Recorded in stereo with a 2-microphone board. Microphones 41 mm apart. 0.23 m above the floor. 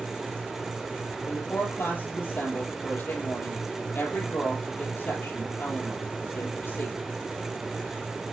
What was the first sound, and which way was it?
A woman speaking, 60° left (ahead or behind).